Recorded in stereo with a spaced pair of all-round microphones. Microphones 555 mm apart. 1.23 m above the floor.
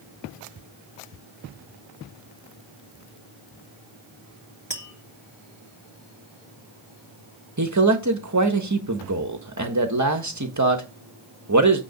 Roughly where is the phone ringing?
I don't hear a phone ringing.